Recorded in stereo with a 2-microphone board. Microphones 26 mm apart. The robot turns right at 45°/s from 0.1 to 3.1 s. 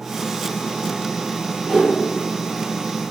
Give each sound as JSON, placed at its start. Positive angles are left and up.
{"t": 1.6, "sound": "a whoosh", "side_deg": -30, "distance_m": 1.0}